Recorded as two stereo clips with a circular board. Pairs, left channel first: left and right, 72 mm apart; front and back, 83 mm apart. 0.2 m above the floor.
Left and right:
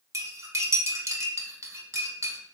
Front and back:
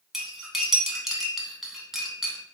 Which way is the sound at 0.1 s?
95° right.